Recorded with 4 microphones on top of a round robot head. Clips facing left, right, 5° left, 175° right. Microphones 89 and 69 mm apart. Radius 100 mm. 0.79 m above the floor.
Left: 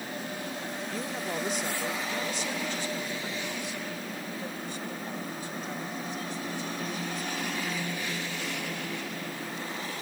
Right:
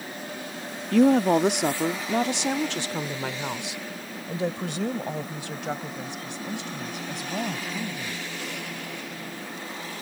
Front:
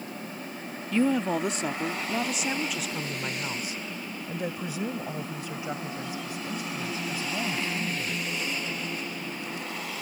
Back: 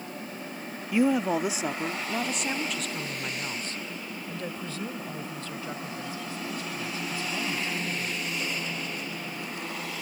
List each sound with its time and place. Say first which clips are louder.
0.9 s a woman speaking: right 19 dB, back 1 dB; 100° right; by 8.2 s 70° right